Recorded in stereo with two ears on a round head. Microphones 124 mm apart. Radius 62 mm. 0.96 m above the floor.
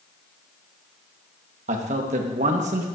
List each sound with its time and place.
1.7 s a man speaking: 60° right (ahead or behind), 1.3 m